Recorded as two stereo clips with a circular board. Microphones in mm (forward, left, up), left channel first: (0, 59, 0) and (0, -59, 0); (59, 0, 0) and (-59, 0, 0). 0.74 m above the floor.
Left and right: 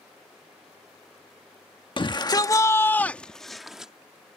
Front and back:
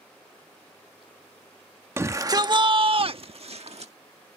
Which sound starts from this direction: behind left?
A shout, at 2.0 s.